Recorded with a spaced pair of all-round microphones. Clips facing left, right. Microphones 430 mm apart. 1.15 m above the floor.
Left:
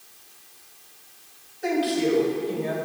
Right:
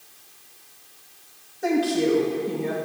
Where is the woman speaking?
60° right (ahead or behind), 2 m.